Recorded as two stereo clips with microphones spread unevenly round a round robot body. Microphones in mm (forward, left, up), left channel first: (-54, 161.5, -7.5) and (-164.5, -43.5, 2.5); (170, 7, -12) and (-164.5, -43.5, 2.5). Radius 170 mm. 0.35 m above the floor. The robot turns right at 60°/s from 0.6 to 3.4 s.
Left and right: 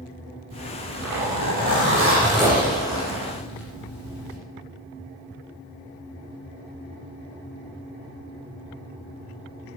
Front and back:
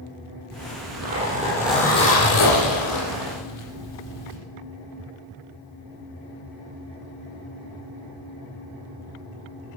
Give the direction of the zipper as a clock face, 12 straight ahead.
5 o'clock.